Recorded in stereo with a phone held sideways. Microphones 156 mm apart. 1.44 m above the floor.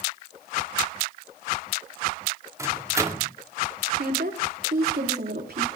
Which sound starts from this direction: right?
A woman speaking, at 4.0 s.